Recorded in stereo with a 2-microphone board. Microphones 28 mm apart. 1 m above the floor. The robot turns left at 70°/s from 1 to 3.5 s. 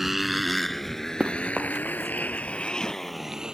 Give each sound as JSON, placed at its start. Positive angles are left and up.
{"t": 0.0, "sound": "a motorcycle", "side_deg": -10}
{"t": 1.2, "sound": "running footsteps", "side_deg": -45}